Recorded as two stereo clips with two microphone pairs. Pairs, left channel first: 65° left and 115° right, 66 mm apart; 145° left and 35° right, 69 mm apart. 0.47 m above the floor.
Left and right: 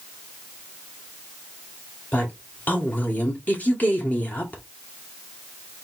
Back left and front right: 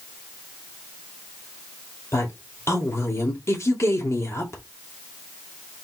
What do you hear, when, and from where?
2.1 s a woman speaking: 120° left, 2.0 m